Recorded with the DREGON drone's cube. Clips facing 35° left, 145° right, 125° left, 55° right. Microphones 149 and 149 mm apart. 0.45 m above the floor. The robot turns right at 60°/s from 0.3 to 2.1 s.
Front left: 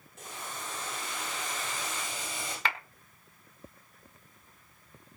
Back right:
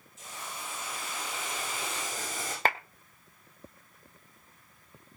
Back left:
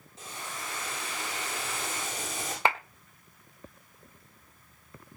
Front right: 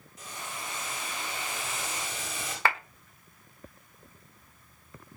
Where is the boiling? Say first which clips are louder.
Front left 1 dB, even; 60° left, 10 m; by 2.5 s 170° left, 10 m.